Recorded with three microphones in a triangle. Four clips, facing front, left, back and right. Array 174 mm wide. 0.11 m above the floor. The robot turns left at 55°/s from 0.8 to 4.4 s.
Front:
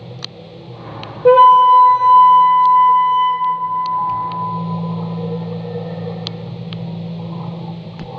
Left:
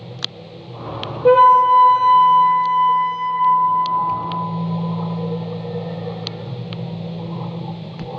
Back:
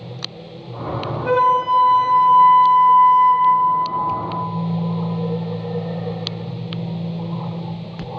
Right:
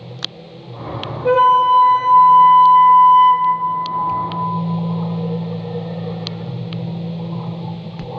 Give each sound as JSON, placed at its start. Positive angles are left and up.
{"t": 1.2, "sound": "a flute", "azimuth_deg": 30, "distance_m": 0.9}